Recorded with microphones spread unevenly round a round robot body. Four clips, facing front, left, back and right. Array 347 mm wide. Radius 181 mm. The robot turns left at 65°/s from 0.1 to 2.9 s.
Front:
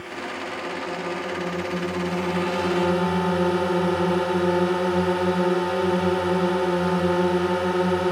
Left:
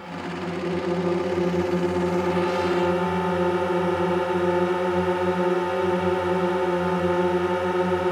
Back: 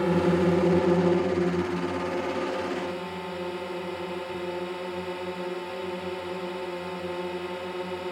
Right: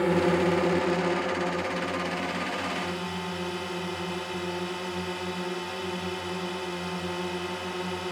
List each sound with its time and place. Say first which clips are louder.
0.0 s a drone: right 8 dB, back 10 dB; 145° right; by 8.1 s 35° left